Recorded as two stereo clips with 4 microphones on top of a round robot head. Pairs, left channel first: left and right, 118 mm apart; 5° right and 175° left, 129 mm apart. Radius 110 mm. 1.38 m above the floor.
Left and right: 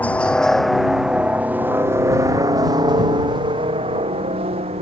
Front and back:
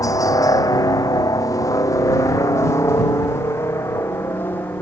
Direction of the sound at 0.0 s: 25° left.